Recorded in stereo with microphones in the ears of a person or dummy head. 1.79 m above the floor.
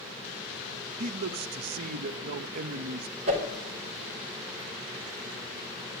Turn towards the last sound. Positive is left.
turn(degrees=-45)  # may be behind; listen again after turning